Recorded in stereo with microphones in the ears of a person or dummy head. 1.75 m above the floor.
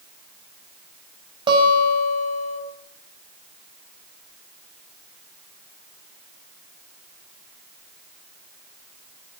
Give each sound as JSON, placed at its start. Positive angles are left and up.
{"t": 1.5, "sound": "a guitar", "side_deg": -25, "distance_m": 6.0}